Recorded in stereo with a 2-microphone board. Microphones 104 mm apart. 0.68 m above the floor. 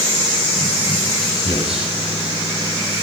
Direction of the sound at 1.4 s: 60° right (ahead or behind).